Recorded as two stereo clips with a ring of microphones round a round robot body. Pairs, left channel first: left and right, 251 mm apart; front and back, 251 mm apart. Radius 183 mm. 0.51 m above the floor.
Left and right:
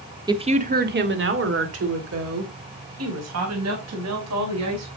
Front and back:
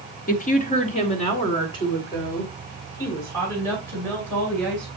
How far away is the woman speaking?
About 1.4 m.